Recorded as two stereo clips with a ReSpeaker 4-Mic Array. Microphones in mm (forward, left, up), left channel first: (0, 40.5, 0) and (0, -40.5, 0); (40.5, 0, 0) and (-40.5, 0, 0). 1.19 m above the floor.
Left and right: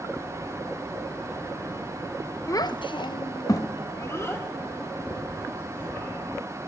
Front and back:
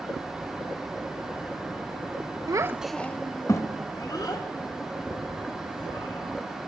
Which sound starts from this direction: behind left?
A child speaking, at 2.5 s.